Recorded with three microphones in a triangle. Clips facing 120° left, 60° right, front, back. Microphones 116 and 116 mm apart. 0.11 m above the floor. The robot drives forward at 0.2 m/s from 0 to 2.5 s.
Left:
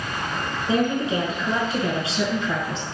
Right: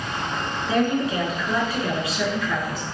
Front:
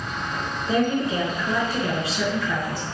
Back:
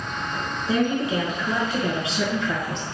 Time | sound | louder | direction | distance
0.7 | a woman speaking | even, even | 115° left | 1.1 m